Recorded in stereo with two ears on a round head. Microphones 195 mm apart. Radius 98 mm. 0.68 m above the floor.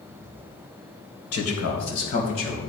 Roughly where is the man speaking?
Left.